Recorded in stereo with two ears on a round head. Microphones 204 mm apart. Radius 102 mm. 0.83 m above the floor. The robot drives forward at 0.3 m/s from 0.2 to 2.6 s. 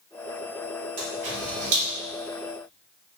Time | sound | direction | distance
1.0 | a camera shutter | 75° right (ahead or behind) | 1.6 m